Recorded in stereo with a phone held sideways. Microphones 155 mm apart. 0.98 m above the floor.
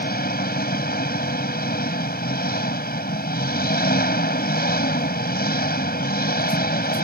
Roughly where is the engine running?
Left.